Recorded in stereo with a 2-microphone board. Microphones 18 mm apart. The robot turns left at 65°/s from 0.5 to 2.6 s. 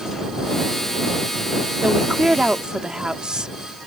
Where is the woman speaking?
70° right; by 3.5 s 120° right.